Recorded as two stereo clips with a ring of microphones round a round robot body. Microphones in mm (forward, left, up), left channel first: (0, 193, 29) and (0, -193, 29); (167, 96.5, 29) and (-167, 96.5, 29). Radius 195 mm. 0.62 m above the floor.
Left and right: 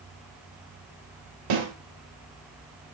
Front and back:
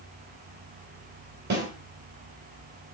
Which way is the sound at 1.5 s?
115° right.